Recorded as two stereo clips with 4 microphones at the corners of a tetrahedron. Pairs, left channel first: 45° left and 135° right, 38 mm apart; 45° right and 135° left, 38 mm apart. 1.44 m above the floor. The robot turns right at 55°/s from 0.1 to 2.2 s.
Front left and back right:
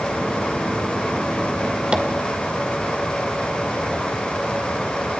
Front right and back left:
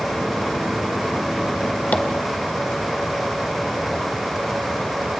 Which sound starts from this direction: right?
Tapping, at 1.9 s.